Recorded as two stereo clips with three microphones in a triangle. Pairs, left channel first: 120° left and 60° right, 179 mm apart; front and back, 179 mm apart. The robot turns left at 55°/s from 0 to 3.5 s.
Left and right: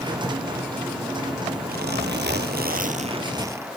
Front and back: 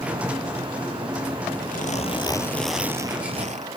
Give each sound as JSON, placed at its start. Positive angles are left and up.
{"t": 1.7, "sound": "a zipper", "azimuth_deg": -35}